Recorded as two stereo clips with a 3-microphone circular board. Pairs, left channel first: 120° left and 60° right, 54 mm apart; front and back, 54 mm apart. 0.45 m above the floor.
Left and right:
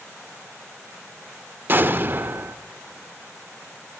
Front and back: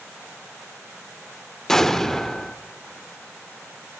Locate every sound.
1.7 s an explosion: 75° right, 0.5 m